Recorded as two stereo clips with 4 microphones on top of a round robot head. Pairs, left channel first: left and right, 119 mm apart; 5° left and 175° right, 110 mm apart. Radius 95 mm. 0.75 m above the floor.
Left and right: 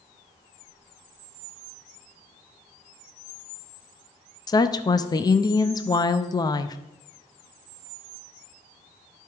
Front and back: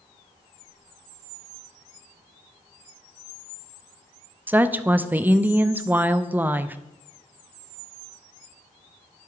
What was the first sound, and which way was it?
A woman speaking, 120° left.